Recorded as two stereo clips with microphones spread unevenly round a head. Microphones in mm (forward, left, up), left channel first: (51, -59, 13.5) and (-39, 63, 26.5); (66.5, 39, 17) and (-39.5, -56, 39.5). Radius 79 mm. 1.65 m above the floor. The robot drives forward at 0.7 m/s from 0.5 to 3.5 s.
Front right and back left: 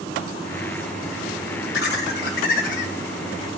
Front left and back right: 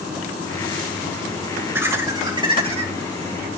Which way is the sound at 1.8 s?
65° right.